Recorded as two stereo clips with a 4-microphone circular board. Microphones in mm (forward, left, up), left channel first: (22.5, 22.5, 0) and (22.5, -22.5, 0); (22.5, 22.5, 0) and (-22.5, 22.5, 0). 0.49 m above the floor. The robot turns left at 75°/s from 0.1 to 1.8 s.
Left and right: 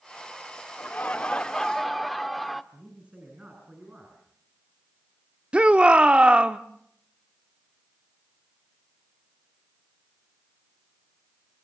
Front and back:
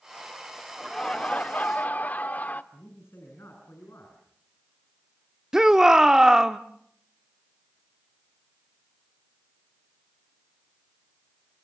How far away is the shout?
About 0.7 m.